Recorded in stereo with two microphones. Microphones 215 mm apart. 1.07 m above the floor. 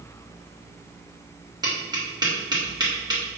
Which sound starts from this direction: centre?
Tapping, at 1.6 s.